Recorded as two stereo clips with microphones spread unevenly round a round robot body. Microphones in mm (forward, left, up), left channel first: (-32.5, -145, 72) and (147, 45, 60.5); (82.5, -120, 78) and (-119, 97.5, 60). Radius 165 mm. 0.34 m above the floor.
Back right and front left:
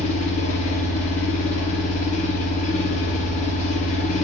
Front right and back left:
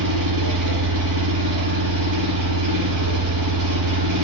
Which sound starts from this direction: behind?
An engine running, at 0.0 s.